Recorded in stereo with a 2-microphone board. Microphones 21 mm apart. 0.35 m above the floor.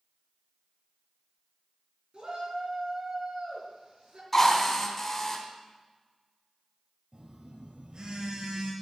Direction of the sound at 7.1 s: 50° right (ahead or behind).